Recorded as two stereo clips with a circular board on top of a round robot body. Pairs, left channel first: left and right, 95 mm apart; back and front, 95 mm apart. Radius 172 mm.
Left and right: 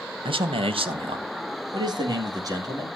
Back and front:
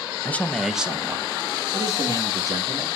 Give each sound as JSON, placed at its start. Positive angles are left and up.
{"t": 0.2, "sound": "a man speaking", "azimuth_deg": -110, "distance_m": 1.2}